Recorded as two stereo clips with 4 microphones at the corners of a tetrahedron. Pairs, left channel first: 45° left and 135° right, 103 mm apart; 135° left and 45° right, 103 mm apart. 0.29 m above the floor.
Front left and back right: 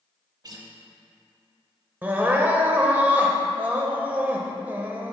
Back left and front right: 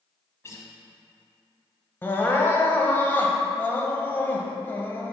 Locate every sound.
0.4 s a guitar: 175° right, 0.8 m
2.0 s crying: 175° left, 0.6 m